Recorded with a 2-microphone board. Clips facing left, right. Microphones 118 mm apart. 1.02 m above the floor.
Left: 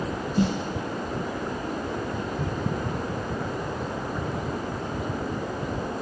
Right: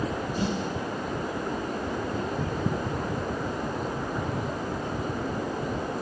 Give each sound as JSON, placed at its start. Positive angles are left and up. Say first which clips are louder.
{"t": 0.4, "sound": "a snare drum", "louder": "left 6 dB", "side_deg": 55, "distance_m": 1.4}